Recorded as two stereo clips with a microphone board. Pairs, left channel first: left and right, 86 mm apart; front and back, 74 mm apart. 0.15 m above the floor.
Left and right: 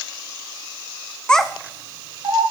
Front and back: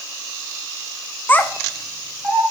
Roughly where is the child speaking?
Ahead left.